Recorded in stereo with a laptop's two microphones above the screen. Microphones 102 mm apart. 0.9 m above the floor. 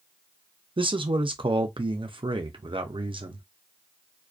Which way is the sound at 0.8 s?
55° right (ahead or behind).